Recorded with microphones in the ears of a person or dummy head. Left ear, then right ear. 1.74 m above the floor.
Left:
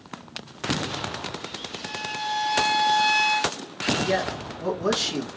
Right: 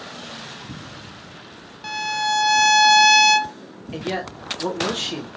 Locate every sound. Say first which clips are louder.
1.8 s a violin: right 8 dB; 65° right (ahead or behind), 0.6 m
3.9 s a man speaking: left 2 dB; 20° right (ahead or behind), 2.0 m